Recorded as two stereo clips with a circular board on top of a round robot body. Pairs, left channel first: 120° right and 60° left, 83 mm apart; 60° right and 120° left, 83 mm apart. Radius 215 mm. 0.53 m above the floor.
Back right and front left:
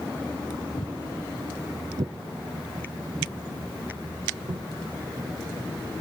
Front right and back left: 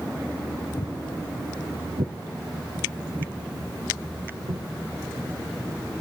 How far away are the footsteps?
About 0.7 m.